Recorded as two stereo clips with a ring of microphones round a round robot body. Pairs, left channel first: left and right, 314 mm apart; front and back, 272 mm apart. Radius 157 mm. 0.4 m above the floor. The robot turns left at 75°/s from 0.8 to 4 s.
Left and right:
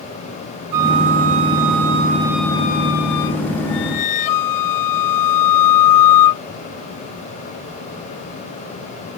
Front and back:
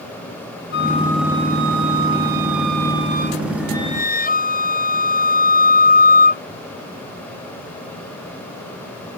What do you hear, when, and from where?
0.7 s a flute: 60° right; by 6.4 s 60° left